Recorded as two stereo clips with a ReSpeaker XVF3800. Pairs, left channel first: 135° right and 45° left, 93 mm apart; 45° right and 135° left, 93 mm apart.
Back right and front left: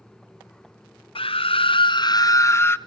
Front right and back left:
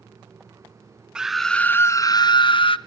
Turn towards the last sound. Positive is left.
turn(degrees=-70)